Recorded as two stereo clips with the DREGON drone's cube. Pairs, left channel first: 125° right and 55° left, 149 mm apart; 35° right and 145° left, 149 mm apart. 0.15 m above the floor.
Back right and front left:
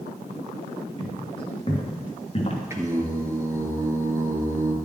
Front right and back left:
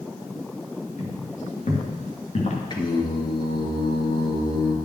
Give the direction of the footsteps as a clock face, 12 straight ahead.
2 o'clock.